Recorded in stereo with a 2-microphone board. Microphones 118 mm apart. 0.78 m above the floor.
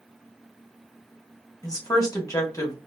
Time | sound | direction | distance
1.6 | a woman speaking | 30° left (ahead or behind) | 1.3 m